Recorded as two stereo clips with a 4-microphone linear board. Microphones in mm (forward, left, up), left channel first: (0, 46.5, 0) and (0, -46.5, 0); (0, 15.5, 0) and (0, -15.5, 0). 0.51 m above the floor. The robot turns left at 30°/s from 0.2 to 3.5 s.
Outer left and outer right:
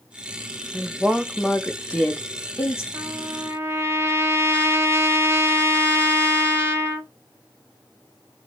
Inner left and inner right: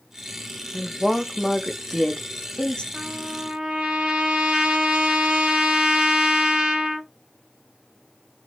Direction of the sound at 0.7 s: 165° right.